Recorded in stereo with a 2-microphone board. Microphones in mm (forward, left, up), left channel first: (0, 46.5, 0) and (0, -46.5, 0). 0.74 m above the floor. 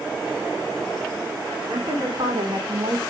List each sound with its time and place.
1.7 s a woman speaking: 65° right (ahead or behind), 2 m; by 3.0 s 40° right (ahead or behind), 1.5 m